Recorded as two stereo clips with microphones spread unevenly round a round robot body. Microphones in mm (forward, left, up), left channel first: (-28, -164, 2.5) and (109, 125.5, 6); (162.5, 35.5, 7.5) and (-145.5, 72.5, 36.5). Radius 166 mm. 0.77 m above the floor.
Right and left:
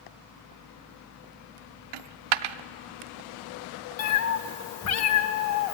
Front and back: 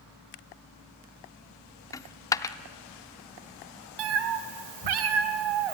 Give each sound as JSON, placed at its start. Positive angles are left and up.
{"t": 1.9, "sound": "a dropped coin", "azimuth_deg": 75, "distance_m": 0.6}
{"t": 4.0, "sound": "a cat meowing", "azimuth_deg": -165, "distance_m": 0.9}